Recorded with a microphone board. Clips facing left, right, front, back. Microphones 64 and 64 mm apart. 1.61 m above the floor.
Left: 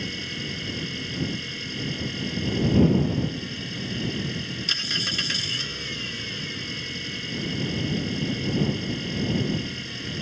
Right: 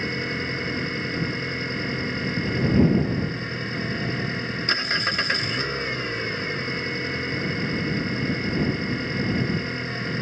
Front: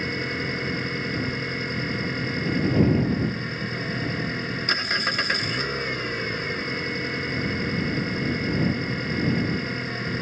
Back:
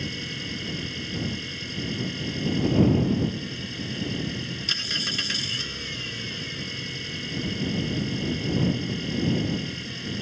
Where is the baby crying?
I don't hear a baby crying.